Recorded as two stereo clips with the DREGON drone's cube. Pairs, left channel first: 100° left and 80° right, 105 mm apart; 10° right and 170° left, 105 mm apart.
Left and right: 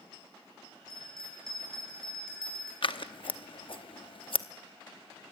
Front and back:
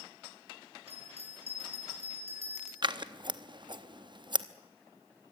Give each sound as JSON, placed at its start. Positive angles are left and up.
{"t": 0.9, "sound": "a bell", "azimuth_deg": -175, "distance_m": 5.0}
{"t": 2.8, "sound": "scissors", "azimuth_deg": 130, "distance_m": 0.8}